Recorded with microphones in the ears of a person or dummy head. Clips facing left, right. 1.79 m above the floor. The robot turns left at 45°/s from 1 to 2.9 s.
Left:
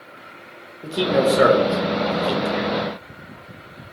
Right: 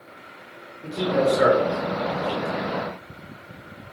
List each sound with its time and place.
0.8 s a man speaking: 40° left (ahead or behind), 0.6 m